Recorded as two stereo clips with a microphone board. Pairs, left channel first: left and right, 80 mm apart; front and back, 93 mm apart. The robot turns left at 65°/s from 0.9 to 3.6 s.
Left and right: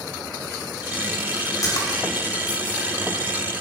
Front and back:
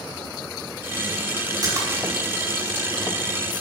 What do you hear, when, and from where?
1.6 s a splash: 135° left, 5 m; by 2.0 s 105° left, 5 m